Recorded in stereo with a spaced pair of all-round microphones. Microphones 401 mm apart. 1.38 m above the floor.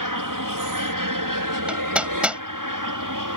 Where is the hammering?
5° right (ahead or behind).